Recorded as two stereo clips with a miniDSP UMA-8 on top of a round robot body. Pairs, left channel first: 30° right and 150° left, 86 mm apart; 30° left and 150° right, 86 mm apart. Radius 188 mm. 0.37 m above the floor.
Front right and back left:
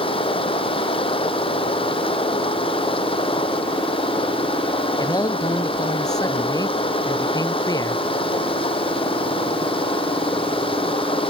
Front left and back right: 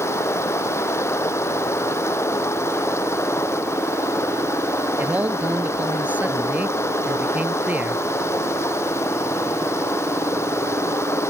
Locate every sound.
0.0 s running water: 30° right
5.0 s a man speaking: 75° right